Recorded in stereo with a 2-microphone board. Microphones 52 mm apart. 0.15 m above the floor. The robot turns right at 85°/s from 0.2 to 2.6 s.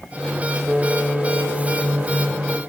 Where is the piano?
50° right, 8.5 m; by 2.6 s 110° left, 8.5 m.